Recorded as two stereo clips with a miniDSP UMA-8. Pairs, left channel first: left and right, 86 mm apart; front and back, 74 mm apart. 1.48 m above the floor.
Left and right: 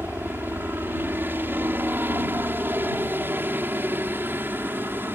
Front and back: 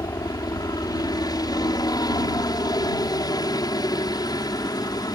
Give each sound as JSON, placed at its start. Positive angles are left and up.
{"t": 0.0, "sound": "a helicopter", "azimuth_deg": -25}